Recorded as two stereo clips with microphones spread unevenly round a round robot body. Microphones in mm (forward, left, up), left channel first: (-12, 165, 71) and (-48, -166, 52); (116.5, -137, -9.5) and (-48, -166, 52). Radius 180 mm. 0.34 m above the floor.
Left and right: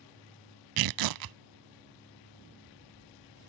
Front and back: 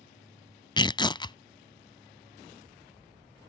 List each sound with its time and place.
0.8 s tearing paper: 60° right